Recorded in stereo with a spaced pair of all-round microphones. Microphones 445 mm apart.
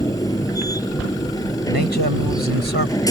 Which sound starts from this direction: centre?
A machine running, at 0.0 s.